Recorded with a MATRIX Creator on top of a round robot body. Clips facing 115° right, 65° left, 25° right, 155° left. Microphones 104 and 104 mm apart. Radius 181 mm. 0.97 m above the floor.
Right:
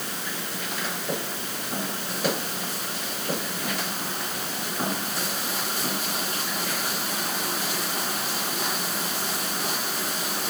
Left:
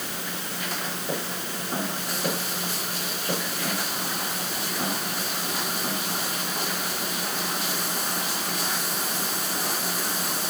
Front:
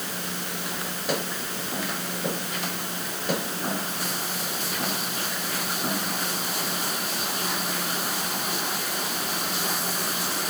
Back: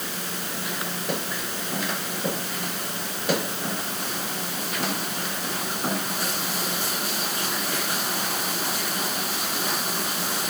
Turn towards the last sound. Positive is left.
No sound to turn to.